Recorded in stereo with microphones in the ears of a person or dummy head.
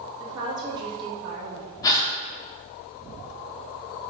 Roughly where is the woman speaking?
Right.